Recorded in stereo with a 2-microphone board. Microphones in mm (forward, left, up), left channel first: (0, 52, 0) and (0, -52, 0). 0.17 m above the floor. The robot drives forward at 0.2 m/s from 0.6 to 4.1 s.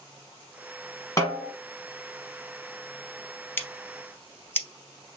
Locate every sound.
1.2 s a snare drum: 30° left (ahead or behind), 1.1 m
3.6 s scissors: 20° left (ahead or behind), 0.5 m